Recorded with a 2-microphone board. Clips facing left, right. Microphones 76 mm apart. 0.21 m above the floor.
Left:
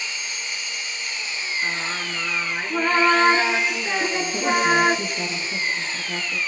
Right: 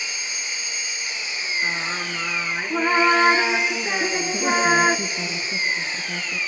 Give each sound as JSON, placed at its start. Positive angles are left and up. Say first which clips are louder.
{"t": 0.0, "sound": "an engine running", "louder": "even", "side_deg": -15, "distance_m": 3.0}
{"t": 1.6, "sound": "singing", "louder": "right 1 dB", "side_deg": -5, "distance_m": 1.0}
{"t": 4.0, "sound": "a woman speaking", "louder": "left 1 dB", "side_deg": 0, "distance_m": 3.0}